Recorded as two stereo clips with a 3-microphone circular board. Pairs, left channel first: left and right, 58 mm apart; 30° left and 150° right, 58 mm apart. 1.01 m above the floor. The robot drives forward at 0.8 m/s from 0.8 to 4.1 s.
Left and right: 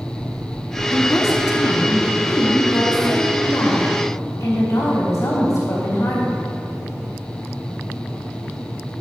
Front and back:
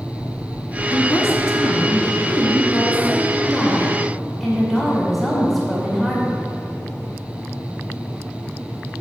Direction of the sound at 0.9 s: 50° left.